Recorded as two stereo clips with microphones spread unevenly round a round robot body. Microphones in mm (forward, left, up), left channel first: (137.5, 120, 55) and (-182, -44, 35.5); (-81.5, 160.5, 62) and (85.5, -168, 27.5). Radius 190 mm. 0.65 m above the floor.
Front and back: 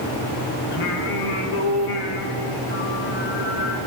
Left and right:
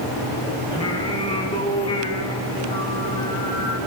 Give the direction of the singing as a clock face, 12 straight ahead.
11 o'clock.